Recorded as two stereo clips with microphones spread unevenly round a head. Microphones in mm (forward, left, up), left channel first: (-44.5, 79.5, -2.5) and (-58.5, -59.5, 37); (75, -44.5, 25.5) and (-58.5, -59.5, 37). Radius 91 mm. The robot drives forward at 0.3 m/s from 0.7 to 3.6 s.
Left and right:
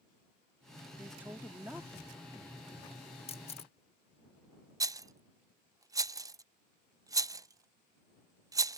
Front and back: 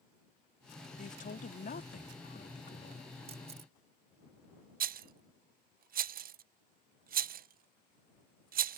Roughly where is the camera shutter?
Behind left.